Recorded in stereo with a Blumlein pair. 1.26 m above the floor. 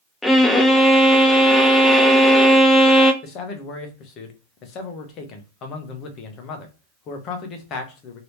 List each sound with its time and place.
0.2 s a violin: 5° left, 0.6 m
3.2 s a man speaking: 35° left, 1.0 m